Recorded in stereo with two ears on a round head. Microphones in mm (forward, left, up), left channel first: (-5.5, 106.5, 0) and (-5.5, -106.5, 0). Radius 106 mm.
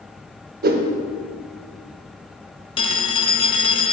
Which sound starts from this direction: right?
A whoosh, at 0.6 s.